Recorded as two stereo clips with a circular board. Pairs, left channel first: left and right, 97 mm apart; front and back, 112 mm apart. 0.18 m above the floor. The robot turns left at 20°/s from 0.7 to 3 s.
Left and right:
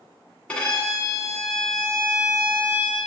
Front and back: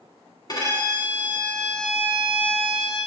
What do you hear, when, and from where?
0.5 s a violin: 20° left, 1.5 m; by 3.0 s 25° right, 1.5 m